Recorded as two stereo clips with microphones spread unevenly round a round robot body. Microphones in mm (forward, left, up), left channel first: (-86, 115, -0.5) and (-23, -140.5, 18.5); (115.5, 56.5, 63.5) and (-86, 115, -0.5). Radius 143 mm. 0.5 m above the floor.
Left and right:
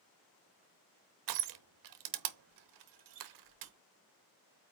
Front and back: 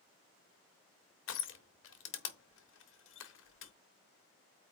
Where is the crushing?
65° right, 0.9 m.